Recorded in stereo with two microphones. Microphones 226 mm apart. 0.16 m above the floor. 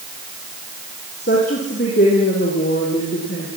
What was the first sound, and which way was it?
A woman speaking, 45° left (ahead or behind).